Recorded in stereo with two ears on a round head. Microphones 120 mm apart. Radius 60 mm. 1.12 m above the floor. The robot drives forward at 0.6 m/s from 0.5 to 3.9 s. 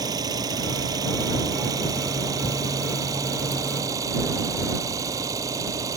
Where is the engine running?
30° right (ahead or behind); by 6.0 s 25° right (ahead or behind).